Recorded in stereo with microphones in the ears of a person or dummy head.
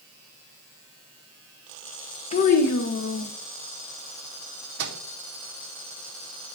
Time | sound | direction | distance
2.3 | a child speaking | 40° left (ahead or behind) | 0.8 m
4.8 | a microwave | 65° right (ahead or behind) | 0.7 m